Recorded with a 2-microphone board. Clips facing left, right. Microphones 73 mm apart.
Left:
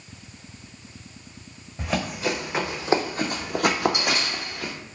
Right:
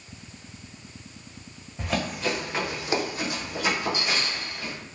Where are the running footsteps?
5° left (ahead or behind), 1.0 m; by 4.7 s 70° left (ahead or behind), 0.9 m.